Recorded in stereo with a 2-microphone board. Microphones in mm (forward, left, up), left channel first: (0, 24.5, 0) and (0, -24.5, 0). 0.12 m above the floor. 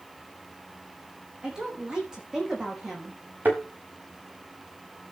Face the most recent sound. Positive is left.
turn(degrees=-40)  # may be behind; listen again after turning